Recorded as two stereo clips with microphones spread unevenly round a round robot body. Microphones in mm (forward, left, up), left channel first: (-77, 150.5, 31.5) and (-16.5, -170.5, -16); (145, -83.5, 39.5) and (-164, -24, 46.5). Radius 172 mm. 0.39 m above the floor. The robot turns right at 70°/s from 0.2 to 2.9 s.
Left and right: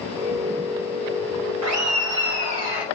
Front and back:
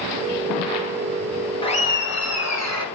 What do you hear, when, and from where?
1.6 s laughter: 80° right, 2 m; by 2.9 s 5° left, 2 m